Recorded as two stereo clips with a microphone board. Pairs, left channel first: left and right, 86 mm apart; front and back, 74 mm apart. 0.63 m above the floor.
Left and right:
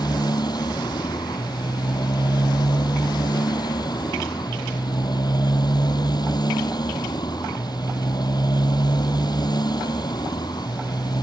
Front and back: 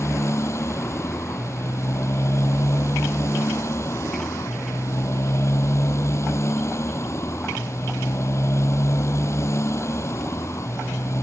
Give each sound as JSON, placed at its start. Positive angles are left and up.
{"t": 0.0, "sound": "a motorcycle", "azimuth_deg": 50}